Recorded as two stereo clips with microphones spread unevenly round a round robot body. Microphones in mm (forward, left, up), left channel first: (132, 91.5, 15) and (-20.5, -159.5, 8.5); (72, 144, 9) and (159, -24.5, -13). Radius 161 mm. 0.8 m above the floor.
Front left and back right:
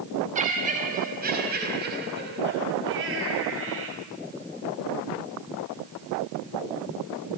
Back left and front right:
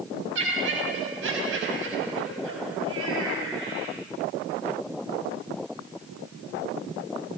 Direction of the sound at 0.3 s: 55° right.